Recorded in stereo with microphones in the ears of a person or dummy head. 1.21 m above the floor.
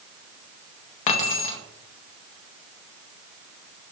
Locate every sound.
1.1 s keys jangling: 35° left (ahead or behind), 0.6 m